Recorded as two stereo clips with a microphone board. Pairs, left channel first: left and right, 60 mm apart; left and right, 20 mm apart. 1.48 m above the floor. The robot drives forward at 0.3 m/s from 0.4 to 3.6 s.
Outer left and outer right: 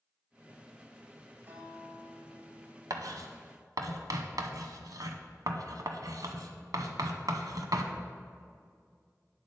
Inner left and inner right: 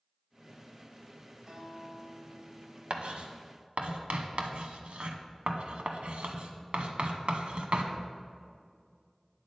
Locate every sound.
1.5 s a guitar: 35° right (ahead or behind), 3 m; by 2.8 s 30° right (ahead or behind), 3.5 m
2.9 s writing: 75° right (ahead or behind), 0.8 m; by 7.9 s 90° right, 0.8 m